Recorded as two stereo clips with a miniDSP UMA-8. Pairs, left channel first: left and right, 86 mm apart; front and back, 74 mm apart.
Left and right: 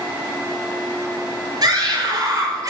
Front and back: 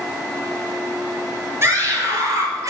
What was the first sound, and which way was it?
A scream, 125° right.